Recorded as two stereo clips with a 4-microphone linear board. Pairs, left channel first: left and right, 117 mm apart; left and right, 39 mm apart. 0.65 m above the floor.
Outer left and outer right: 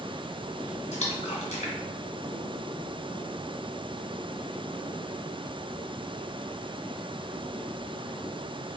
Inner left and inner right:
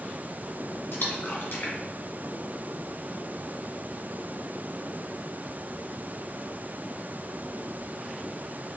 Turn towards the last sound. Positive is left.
turn(degrees=75)  # may be behind; listen again after turning